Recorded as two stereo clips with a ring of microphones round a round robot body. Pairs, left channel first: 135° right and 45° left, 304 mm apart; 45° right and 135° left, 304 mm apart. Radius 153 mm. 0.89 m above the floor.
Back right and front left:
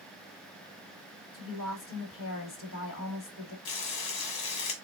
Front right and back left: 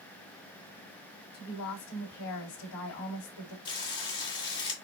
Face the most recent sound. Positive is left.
turn(degrees=-120)